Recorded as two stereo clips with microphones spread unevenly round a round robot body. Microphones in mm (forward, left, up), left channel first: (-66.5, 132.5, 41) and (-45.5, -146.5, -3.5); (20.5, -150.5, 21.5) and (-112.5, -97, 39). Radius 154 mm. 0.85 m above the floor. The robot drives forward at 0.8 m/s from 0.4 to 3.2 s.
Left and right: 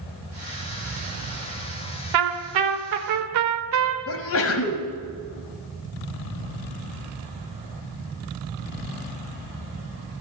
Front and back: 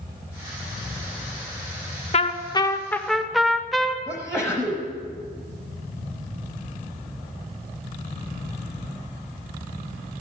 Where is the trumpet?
70° right, 1.1 m; by 4.0 s 115° right, 1.1 m.